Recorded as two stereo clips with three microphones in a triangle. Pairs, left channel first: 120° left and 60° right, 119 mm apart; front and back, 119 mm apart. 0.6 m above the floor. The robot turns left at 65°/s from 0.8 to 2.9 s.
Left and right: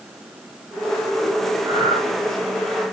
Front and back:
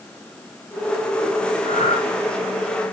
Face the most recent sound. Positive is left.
turn(degrees=-80)